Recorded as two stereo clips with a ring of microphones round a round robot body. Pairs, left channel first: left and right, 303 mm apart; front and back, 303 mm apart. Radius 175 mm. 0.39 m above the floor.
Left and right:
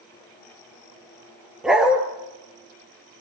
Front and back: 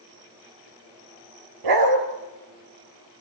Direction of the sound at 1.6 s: Straight behind.